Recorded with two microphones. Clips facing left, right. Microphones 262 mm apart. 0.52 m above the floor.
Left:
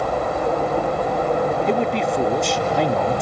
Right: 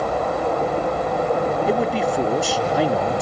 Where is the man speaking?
5° right (ahead or behind), 0.8 m.